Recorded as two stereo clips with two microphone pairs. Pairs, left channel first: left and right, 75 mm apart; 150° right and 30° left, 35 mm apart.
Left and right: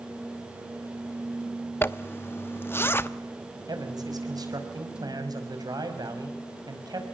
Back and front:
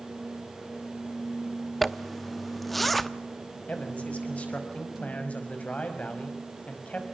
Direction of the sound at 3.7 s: 105° right.